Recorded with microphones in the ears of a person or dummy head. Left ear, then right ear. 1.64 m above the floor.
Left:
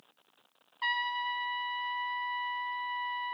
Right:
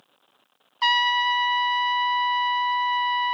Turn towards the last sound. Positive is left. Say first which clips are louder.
# right 11 dB
turn(degrees=-45)  # may be behind; listen again after turning